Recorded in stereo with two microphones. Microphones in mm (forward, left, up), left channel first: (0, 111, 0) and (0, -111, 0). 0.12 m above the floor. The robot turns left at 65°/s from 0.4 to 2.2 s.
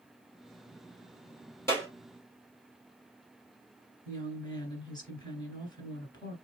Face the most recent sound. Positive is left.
turn(degrees=20)  # may be behind; listen again after turning